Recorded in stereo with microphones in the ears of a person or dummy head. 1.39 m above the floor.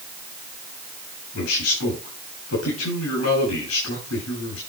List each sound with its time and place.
1.3 s a man speaking: 85° left, 8.5 m